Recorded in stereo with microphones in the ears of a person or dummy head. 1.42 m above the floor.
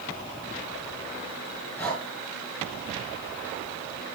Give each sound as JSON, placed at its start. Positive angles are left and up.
{"t": 1.8, "sound": "breathing", "side_deg": 10, "distance_m": 4.0}